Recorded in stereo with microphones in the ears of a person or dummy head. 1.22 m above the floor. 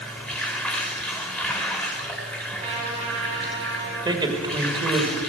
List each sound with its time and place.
0.0 s running water: 5° left (ahead or behind), 3 m
2.6 s a trumpet: 35° right (ahead or behind), 8 m
4.0 s a man speaking: 25° right (ahead or behind), 2 m